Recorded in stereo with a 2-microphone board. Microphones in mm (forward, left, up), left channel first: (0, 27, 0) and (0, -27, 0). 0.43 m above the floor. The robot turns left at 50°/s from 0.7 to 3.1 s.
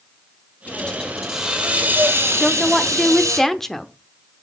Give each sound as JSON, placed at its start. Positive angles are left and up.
{"t": 0.7, "sound": "a hiss", "azimuth_deg": 25, "distance_m": 3.5}
{"t": 2.4, "sound": "a woman speaking", "side_deg": -5, "distance_m": 0.8}